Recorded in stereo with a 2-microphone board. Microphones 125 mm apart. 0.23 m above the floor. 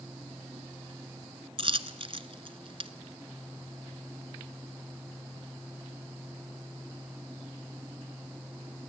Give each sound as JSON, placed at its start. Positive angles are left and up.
{"t": 1.6, "sound": "a dropped coin", "side_deg": -45, "distance_m": 1.1}